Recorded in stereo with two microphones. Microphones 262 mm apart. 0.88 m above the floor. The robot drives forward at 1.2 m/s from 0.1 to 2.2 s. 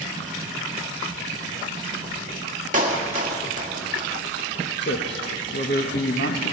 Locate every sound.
2.7 s a clap: 30° right (ahead or behind), 1.4 m
4.8 s a man speaking: 45° left (ahead or behind), 1.0 m